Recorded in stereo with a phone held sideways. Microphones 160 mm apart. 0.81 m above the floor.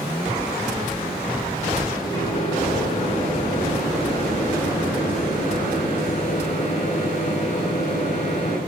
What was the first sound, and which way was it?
A microwave, 45° left (ahead or behind).